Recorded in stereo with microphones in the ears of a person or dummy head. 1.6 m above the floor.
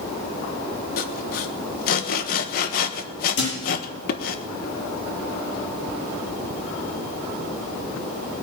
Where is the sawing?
55° left (ahead or behind), 1.3 m.